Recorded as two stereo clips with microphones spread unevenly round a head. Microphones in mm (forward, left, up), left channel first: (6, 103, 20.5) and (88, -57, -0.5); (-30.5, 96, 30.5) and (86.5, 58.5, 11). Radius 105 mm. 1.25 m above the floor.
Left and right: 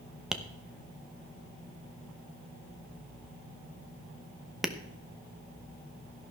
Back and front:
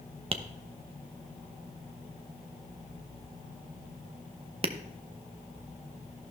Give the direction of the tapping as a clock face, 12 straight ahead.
11 o'clock.